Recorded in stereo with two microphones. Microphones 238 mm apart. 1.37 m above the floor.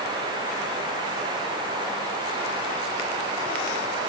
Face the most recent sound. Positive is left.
No sound to turn to.